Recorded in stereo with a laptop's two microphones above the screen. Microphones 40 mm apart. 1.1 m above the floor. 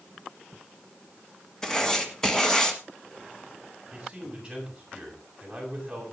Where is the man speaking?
15° right (ahead or behind), 7.5 m.